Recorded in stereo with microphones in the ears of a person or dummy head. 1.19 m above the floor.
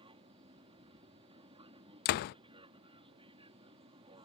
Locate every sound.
0.0 s an aircraft: 25° right (ahead or behind)
2.0 s a door slam: 50° left (ahead or behind)